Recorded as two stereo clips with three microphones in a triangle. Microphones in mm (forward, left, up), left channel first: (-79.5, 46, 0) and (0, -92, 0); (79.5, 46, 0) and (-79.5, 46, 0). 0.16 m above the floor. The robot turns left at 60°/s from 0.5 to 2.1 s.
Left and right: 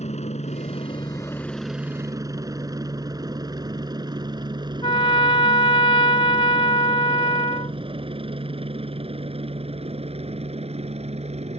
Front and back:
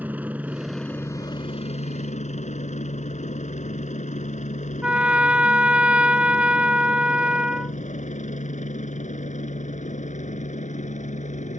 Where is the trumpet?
100° left.